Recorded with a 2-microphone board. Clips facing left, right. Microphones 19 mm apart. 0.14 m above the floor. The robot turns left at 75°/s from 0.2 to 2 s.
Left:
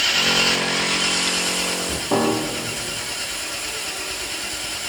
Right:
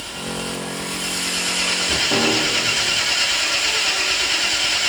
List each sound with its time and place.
0.0 s an engine running: 85° left, 0.8 m; by 4.9 s 50° right, 0.8 m
2.1 s a piano: 40° left (ahead or behind), 4 m